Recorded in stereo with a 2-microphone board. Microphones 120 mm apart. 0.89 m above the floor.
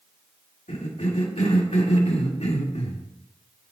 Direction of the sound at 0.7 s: 70° left (ahead or behind).